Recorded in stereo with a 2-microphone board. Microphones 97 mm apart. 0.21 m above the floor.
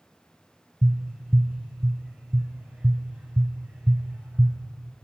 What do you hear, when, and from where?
0.8 s tapping: 15° right (ahead or behind), 1.5 m